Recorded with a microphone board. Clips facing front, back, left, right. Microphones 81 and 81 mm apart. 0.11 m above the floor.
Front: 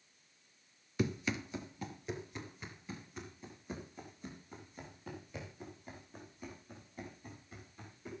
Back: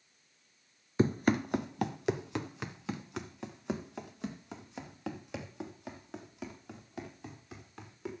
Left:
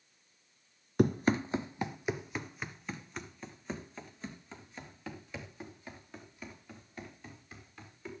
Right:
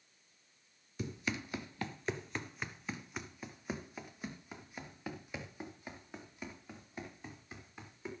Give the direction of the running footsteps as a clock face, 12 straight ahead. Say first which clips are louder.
Back 8 dB, left 12 dB; 8 o'clock.